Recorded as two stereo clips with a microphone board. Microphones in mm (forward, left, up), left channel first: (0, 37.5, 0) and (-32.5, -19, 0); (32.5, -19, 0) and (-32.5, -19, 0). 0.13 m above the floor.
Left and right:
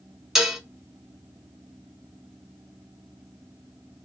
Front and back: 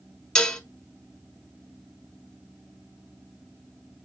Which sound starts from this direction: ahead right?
Dishes clattering, at 0.3 s.